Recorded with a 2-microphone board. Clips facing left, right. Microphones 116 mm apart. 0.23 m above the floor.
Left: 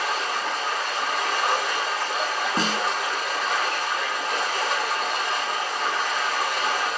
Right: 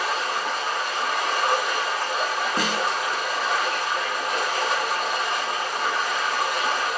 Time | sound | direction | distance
0.0 | running water | 10° right (ahead or behind) | 5 m
2.6 | a snare drum | 25° left (ahead or behind) | 0.7 m